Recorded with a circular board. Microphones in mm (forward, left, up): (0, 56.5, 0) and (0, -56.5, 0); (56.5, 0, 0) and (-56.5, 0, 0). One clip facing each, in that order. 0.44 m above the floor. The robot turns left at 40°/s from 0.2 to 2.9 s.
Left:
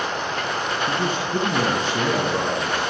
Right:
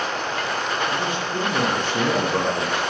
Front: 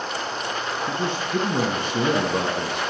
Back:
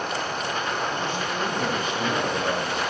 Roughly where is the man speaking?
Ahead left.